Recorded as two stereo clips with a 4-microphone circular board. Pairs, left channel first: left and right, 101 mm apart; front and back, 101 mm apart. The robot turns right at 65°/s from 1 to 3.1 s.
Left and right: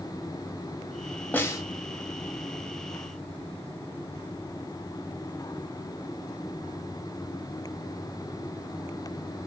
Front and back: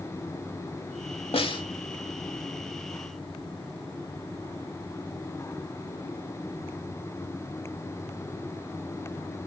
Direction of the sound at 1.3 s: 20° left.